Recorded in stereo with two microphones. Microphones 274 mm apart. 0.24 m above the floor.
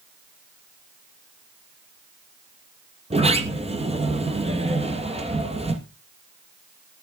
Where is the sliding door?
25° right (ahead or behind), 1.3 m.